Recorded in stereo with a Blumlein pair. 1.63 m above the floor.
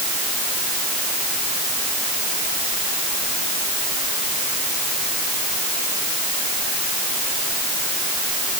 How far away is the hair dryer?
I don't hear a hair dryer.